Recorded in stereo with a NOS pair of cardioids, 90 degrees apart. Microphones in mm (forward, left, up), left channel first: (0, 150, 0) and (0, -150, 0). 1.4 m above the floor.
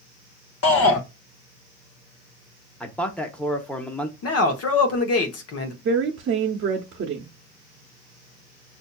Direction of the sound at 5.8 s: 45° right.